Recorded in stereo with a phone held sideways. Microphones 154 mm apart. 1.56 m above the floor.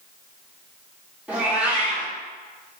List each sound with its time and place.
1.3 s a cat meowing: 10° right (ahead or behind), 0.8 m